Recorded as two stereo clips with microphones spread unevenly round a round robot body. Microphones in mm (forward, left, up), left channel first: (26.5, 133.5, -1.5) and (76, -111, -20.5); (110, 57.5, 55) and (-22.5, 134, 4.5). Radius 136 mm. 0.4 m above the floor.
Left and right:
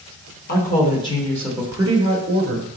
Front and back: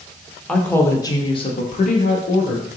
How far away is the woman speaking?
About 1.0 m.